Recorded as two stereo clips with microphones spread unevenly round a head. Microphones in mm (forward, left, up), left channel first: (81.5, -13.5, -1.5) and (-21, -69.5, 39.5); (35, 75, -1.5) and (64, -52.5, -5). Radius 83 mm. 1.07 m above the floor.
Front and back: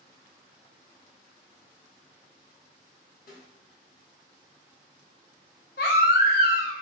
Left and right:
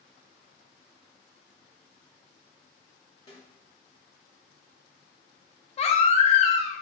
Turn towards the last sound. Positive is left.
turn(degrees=65)